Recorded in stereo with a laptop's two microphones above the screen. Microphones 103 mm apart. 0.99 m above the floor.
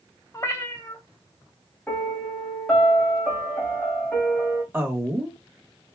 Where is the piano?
10° left (ahead or behind), 0.8 m.